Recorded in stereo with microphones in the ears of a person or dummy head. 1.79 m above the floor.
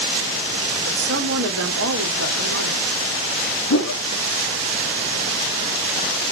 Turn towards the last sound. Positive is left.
turn(degrees=80)